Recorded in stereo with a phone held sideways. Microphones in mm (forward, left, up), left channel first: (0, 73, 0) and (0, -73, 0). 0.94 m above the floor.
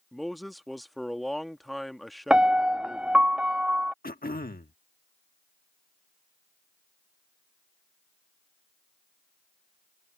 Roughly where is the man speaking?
Centre.